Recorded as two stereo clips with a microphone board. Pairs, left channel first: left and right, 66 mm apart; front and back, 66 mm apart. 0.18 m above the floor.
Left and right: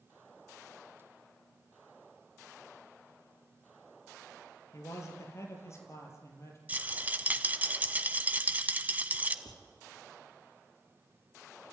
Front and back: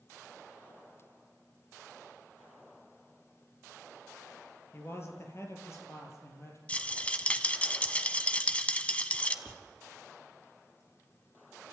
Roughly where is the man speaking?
Ahead left.